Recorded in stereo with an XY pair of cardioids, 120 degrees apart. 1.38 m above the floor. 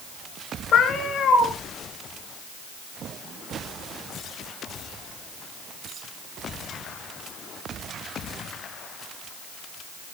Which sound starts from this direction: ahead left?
A cat meowing, at 0.7 s.